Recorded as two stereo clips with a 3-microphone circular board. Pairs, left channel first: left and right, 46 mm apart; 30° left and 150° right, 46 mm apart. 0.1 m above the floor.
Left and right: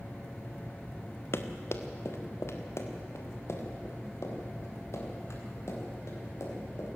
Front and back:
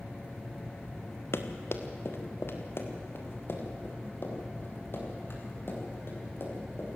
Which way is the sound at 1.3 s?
60° left.